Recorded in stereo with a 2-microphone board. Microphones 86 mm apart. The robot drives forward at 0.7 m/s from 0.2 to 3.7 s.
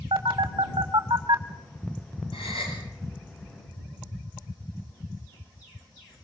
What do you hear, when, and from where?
0.1 s a phone buzzing: 80° right, 1.8 m; by 1.4 s 60° right (ahead or behind), 2 m
2.3 s a gasp: 85° left, 8 m; by 2.8 s 90° left, 8 m